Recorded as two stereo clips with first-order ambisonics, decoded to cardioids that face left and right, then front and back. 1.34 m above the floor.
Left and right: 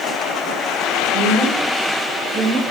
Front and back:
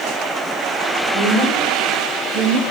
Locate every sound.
1.1 s a woman speaking: 165° left, 3 m; by 2.6 s straight behind, 1.6 m